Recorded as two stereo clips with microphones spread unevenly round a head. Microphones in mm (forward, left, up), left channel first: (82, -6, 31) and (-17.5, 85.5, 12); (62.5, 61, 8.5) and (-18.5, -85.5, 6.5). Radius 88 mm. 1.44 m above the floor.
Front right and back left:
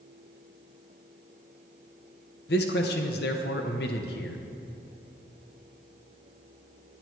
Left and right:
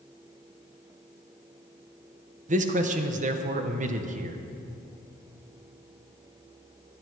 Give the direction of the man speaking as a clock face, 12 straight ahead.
2 o'clock.